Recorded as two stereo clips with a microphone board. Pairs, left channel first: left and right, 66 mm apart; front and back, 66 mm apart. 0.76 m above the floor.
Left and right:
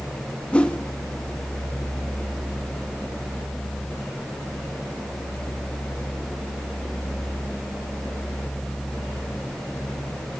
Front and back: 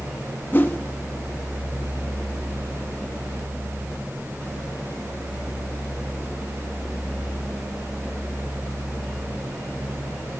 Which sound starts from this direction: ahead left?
A whoosh, at 0.5 s.